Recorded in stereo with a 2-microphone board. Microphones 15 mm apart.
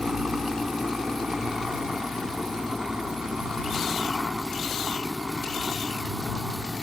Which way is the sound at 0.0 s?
60° right (ahead or behind).